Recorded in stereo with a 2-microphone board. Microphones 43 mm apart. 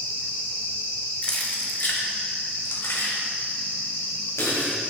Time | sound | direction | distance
1.2 | keys jangling | 25° left (ahead or behind) | 1.3 m